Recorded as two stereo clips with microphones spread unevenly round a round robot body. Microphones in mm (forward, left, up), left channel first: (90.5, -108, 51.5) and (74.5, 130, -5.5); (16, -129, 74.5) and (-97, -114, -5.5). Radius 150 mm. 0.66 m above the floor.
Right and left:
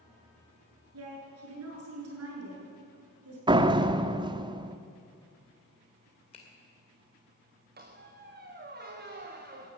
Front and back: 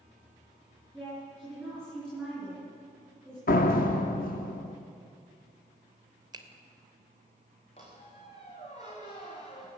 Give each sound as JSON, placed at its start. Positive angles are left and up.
{"t": 0.9, "sound": "a woman speaking", "azimuth_deg": 85, "distance_m": 8.0}
{"t": 3.5, "sound": "a door slam", "azimuth_deg": 35, "distance_m": 0.9}
{"t": 6.3, "sound": "a finger snap", "azimuth_deg": -160, "distance_m": 2.5}
{"t": 7.8, "sound": "a squeak", "azimuth_deg": 45, "distance_m": 4.0}